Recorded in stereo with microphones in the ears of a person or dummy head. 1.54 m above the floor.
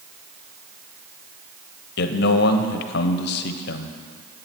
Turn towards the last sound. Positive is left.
turn(degrees=60)  # may be behind; listen again after turning